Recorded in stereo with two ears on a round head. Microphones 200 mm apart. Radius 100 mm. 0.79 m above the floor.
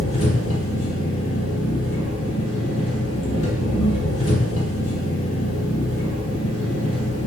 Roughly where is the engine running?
Left.